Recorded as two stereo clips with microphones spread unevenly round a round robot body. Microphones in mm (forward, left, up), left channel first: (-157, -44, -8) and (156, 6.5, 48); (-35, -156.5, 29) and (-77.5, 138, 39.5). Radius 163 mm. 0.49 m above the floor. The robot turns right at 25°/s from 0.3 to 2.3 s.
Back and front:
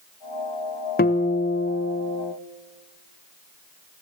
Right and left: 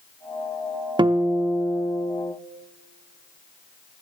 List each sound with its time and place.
1.0 s a guitar: 170° left, 0.5 m; by 2.3 s 160° right, 0.5 m